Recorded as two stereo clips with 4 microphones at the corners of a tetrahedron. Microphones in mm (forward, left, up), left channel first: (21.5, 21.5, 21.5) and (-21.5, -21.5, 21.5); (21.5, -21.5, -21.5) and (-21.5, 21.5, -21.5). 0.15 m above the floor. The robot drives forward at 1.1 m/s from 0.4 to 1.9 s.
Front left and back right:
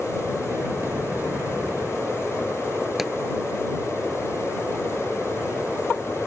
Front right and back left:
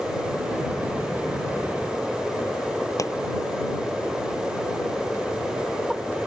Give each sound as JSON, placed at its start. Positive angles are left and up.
{"t": 3.0, "sound": "a pop", "azimuth_deg": -50}